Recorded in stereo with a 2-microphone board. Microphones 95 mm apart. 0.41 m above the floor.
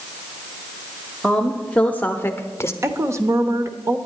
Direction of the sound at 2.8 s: 30° right (ahead or behind).